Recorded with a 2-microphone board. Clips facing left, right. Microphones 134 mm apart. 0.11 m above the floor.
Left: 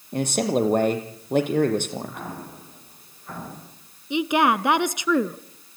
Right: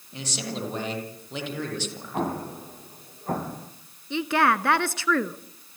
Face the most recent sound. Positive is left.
turn(degrees=15)  # may be behind; listen again after turning